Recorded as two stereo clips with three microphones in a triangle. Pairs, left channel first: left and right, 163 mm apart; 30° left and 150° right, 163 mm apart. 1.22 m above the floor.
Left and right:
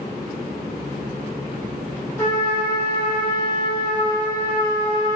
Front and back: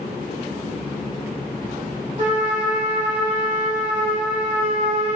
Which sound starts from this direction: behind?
A trumpet, at 2.2 s.